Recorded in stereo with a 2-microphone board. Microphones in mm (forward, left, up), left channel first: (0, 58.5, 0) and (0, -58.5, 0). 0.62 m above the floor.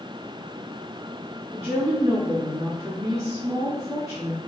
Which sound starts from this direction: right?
A woman speaking, at 1.5 s.